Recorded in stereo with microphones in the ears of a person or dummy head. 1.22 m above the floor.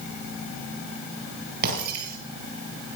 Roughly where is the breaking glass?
Right.